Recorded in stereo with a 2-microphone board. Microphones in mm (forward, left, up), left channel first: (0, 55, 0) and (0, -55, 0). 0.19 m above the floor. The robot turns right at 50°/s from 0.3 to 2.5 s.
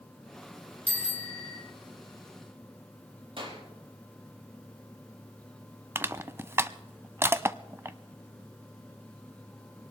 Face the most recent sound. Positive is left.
turn(degrees=-25)  # may be behind; listen again after turning